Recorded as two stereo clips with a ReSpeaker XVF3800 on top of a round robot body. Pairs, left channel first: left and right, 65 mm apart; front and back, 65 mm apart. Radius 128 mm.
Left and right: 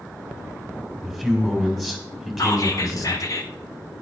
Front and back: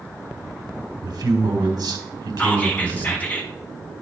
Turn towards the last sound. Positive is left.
turn(degrees=65)